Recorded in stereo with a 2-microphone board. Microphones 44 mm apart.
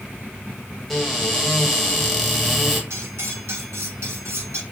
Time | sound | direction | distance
0.9 | a cupboard door | 5° left (ahead or behind) | 1.5 m
2.9 | cutlery clinking | 75° right (ahead or behind) | 1.7 m